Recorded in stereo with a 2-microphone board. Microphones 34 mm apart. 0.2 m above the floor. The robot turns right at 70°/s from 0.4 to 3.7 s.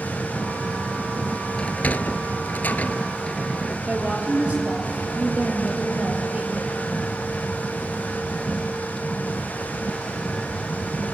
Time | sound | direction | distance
1.6 | a sliding door | 35° left (ahead or behind) | 0.5 m
3.9 | a woman speaking | 50° right (ahead or behind) | 4.5 m